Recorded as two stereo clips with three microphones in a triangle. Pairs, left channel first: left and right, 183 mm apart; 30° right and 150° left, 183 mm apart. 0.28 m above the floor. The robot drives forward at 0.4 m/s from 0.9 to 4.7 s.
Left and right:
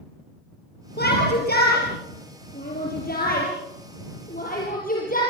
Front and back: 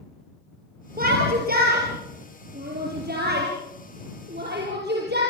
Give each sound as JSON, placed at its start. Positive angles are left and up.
{"t": 1.0, "sound": "a shout", "azimuth_deg": 115, "distance_m": 5.5}